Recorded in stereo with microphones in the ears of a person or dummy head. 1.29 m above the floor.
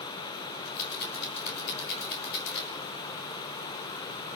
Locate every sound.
0.7 s a rattle: 65° left (ahead or behind), 6 m